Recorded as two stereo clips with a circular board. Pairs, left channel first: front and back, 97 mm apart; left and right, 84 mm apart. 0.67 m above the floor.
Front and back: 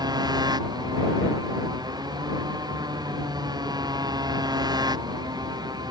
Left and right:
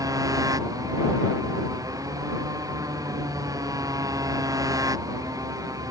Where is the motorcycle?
135° right.